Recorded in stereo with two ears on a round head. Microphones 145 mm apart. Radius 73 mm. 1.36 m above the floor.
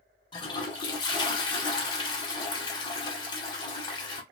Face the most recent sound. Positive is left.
turn(degrees=30)  # may be behind; listen again after turning